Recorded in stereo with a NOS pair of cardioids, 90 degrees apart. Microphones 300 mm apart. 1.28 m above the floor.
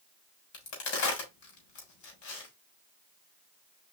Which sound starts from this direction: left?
A crack, at 0.5 s.